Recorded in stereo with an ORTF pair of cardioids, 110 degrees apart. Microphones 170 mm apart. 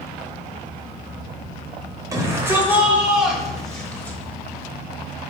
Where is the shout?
20° right, 4 m; by 4.2 s 10° left, 4.5 m.